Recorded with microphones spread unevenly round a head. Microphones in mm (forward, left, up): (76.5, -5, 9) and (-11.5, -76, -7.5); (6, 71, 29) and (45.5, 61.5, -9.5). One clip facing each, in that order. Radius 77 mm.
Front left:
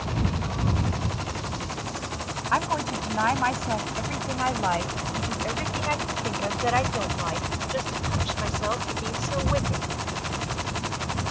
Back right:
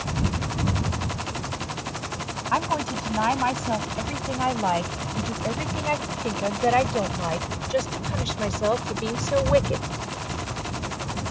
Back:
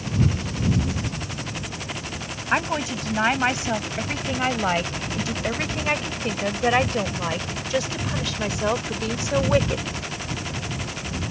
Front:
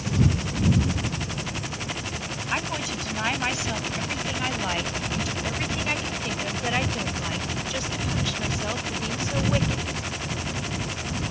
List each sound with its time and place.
2.5 s a woman speaking: 140° left; by 9.9 s 170° left